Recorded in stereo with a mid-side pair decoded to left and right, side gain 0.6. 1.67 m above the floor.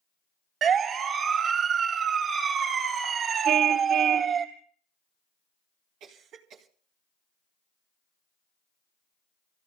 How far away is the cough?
About 3 m.